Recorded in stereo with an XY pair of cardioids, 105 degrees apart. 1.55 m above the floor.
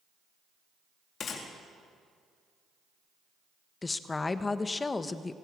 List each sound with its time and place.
1.2 s a gunshot: 50° left, 3.5 m
3.8 s a woman speaking: 25° left, 1.2 m